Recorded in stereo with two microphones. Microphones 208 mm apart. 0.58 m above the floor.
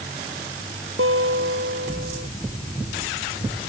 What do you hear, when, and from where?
1.0 s a guitar: 85° right